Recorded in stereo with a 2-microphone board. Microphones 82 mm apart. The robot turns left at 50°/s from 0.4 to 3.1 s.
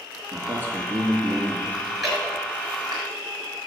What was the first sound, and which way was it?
A man speaking, 140° right.